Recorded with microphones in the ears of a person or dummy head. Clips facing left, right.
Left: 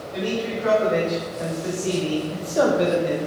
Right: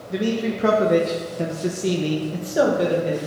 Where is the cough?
No cough in this recording.